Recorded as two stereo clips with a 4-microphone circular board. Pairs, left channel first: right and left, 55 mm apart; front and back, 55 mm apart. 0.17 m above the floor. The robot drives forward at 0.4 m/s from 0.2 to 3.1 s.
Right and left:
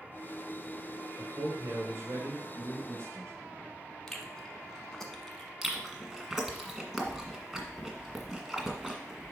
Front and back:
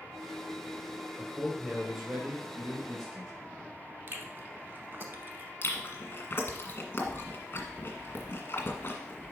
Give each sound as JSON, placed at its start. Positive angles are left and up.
{"t": 1.2, "sound": "a man speaking", "azimuth_deg": 90, "distance_m": 2.5}
{"t": 4.1, "sound": "chewing", "azimuth_deg": -165, "distance_m": 0.9}
{"t": 5.6, "sound": "chewing", "azimuth_deg": 15, "distance_m": 1.6}